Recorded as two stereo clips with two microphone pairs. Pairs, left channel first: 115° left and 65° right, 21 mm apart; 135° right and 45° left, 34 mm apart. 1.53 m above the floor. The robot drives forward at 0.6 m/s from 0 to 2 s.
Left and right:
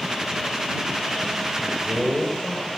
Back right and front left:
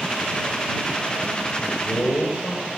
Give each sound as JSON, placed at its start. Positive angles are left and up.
{"t": 1.6, "sound": "a man speaking", "azimuth_deg": -115, "distance_m": 6.5}